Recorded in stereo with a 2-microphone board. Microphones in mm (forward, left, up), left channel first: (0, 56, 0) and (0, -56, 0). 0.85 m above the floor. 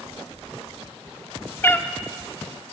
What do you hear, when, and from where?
1.6 s a cat meowing: 20° left (ahead or behind), 1.0 m